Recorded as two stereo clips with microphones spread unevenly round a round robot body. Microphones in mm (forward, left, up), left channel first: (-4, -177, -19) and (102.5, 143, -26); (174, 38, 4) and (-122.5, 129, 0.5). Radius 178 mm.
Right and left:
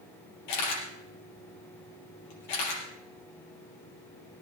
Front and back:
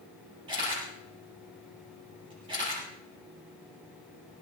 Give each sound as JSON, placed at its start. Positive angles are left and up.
{"t": 0.5, "sound": "a camera shutter", "azimuth_deg": -120, "distance_m": 6.0}